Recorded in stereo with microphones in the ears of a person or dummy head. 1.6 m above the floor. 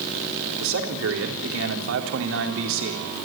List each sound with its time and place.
0.6 s a man speaking: 70° right (ahead or behind), 4 m